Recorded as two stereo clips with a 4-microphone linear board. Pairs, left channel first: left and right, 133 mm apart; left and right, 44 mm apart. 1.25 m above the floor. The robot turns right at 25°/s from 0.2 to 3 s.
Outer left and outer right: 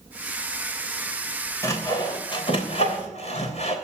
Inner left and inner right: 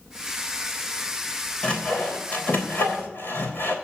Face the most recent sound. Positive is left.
turn(degrees=55)  # may be behind; listen again after turning